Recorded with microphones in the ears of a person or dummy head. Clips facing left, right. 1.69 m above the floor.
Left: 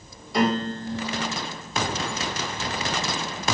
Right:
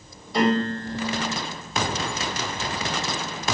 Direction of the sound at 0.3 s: 10° left (ahead or behind).